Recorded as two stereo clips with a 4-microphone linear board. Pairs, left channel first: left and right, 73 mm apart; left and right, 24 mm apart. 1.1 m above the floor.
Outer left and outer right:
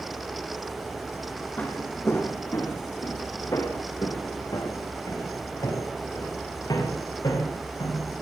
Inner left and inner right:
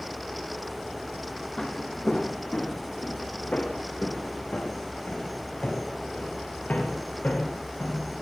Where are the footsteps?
25° left (ahead or behind), 3.5 m; by 8.1 s 70° left (ahead or behind), 10 m.